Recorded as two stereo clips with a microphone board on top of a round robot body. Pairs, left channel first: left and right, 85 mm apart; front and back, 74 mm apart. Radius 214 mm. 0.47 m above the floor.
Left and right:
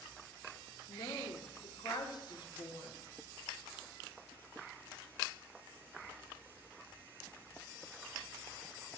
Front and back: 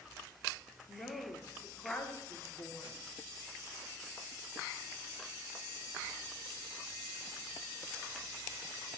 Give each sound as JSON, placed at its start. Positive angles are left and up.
{"t": 0.9, "sound": "a woman speaking", "azimuth_deg": 60, "distance_m": 1.8}